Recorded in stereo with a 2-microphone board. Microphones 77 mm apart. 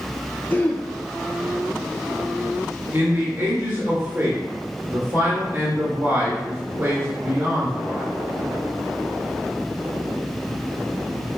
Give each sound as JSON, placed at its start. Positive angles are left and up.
{"t": 0.5, "sound": "throat clearing", "side_deg": 25, "distance_m": 0.6}
{"t": 2.9, "sound": "a man speaking", "side_deg": -30, "distance_m": 1.8}